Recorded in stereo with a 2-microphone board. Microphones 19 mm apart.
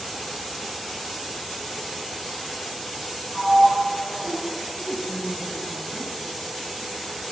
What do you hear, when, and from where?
3.3 s a sliding door: 45° right (ahead or behind), 3 m
4.8 s a woman speaking: 20° right (ahead or behind), 1.9 m